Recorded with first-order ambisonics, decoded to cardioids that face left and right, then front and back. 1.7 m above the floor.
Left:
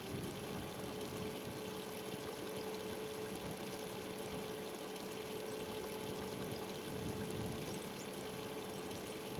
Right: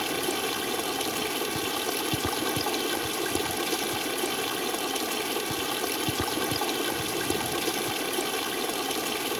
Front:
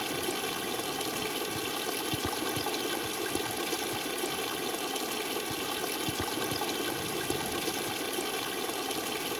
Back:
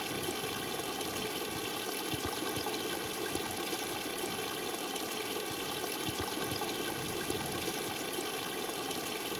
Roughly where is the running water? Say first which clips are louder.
Right 18 dB, front 4 dB; right.